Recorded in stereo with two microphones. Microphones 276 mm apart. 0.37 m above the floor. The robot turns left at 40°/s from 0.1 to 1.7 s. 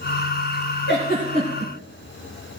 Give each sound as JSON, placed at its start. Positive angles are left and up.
{"t": 0.9, "sound": "a giggle", "side_deg": 40, "distance_m": 4.5}